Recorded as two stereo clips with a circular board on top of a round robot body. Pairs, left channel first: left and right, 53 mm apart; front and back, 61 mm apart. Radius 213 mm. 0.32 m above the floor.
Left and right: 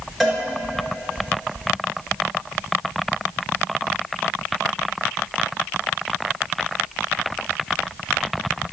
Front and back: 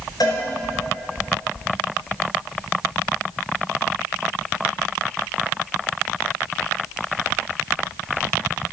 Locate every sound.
0.2 s a cowbell: straight ahead, 3 m